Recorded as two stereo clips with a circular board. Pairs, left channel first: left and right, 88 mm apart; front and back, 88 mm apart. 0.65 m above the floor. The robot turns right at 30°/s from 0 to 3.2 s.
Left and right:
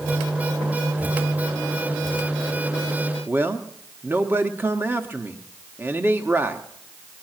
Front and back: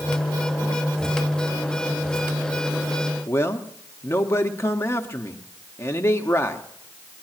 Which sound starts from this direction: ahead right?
A man speaking, at 3.3 s.